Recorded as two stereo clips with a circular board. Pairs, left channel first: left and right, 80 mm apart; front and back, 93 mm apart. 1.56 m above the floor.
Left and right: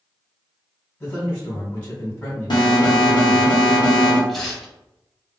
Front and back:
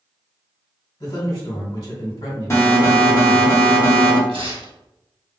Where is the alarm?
60° left, 0.7 m.